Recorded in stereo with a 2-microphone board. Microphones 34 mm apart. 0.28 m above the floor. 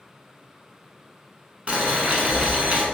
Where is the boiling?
35° right (ahead or behind), 0.7 m.